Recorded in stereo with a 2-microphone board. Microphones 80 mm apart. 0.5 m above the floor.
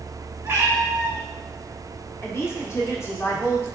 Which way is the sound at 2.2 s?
35° left (ahead or behind).